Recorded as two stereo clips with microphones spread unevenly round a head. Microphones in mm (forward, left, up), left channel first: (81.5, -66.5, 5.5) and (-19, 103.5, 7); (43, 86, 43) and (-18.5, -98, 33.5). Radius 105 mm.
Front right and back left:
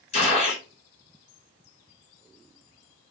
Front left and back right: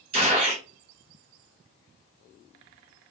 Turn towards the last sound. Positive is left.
turn(degrees=-80)